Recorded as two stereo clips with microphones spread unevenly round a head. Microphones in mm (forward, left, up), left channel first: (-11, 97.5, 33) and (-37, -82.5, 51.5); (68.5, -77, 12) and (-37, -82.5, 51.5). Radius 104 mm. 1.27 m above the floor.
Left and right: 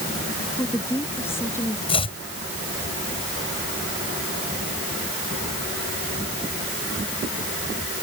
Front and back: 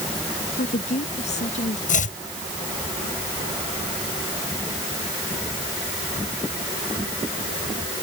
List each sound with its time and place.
0.6 s a woman speaking: straight ahead; by 1.8 s 5° left
1.9 s chopping: 15° left